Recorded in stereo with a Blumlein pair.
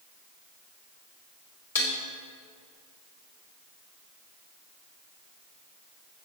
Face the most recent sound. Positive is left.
turn(degrees=65)